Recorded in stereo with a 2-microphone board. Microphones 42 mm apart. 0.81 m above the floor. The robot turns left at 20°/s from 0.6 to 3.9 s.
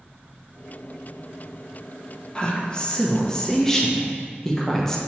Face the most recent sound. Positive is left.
turn(degrees=10)  # may be behind; listen again after turning